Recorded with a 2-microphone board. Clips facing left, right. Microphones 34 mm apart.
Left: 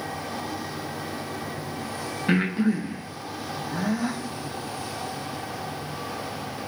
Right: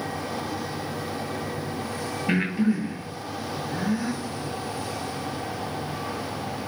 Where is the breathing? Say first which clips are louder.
Left 1 dB; 80° left, 0.8 m.